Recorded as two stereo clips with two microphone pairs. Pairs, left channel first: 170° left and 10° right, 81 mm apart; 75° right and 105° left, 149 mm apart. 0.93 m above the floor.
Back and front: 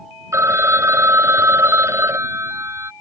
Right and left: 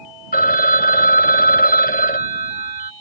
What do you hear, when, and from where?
0.3 s a phone ringing: 65° right